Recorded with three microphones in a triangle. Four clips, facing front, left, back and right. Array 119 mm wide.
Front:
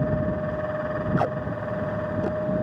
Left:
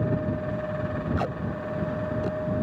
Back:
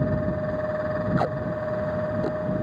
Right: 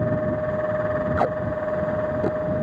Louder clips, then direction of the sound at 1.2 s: Right 7 dB, even; 75° right.